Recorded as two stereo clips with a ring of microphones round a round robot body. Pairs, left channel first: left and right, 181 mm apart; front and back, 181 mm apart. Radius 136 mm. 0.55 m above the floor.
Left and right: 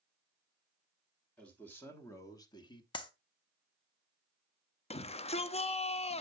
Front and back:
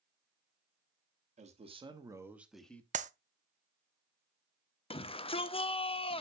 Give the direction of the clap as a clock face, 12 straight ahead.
7 o'clock.